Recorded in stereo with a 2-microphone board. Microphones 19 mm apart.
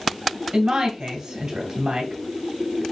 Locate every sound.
0.5 s a woman speaking: 50° right (ahead or behind), 2 m